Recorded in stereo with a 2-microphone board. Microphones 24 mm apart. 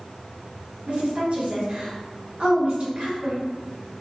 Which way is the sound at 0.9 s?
90° right.